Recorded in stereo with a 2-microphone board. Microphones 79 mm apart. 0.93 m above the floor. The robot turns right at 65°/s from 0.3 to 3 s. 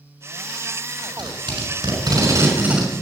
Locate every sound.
1.0 s tape being pulled: 50° right (ahead or behind), 6 m; by 2.9 s 5° right (ahead or behind), 6 m